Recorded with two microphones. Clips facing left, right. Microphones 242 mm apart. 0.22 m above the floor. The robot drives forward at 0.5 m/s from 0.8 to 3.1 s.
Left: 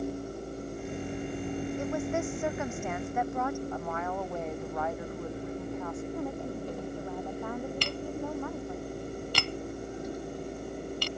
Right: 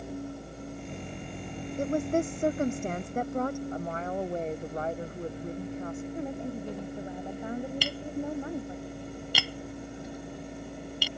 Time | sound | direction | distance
1.8 | a woman speaking | 40° right (ahead or behind) | ?
3.7 | a woman speaking | 30° right (ahead or behind) | ?
6.1 | a woman speaking | 20° right (ahead or behind) | ?
7.8 | tapping | 10° right (ahead or behind) | ?